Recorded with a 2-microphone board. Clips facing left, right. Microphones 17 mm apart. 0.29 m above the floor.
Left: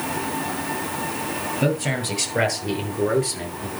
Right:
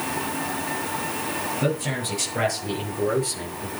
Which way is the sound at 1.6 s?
20° left (ahead or behind).